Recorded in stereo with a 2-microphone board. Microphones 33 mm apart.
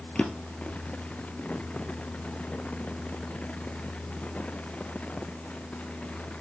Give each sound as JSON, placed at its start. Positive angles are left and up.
{"t": 0.1, "sound": "a drawer", "side_deg": 35, "distance_m": 1.4}